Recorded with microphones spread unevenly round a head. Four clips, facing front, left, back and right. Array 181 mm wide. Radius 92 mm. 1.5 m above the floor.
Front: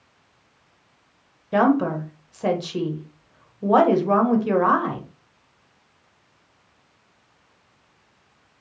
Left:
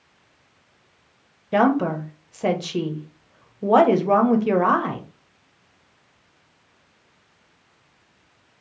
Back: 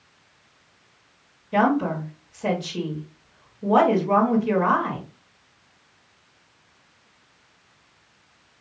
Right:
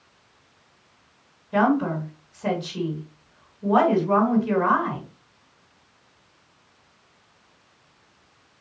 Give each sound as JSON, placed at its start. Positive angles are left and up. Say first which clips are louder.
{"t": 1.5, "sound": "a woman speaking", "louder": "left 2 dB, front 2 dB", "azimuth_deg": 65, "distance_m": 1.4}